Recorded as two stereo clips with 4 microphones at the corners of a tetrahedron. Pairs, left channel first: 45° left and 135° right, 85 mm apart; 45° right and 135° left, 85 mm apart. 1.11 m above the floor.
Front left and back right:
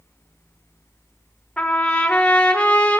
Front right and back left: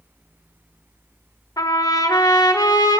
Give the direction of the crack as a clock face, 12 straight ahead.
I don't hear a crack.